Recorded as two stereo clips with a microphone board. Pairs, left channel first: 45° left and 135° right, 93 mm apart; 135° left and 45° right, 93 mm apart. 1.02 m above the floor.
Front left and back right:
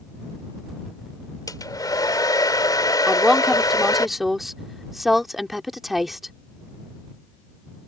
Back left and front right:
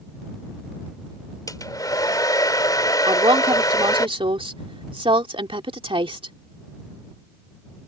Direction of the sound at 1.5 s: 90° left.